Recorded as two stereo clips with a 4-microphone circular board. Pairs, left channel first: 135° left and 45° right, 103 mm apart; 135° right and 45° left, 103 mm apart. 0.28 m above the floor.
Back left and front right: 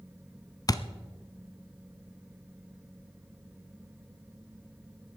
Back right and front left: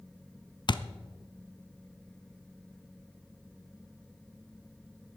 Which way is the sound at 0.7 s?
175° right.